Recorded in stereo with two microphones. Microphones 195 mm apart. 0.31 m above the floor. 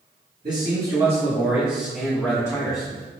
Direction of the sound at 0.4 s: 45° right (ahead or behind).